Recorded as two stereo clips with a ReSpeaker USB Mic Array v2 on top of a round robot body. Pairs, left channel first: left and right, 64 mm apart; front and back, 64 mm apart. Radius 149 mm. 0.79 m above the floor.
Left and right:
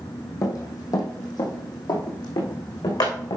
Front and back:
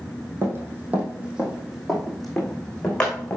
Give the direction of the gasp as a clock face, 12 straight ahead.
No gasp in this recording.